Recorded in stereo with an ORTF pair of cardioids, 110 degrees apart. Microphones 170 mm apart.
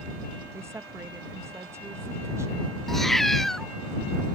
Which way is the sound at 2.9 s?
Straight ahead.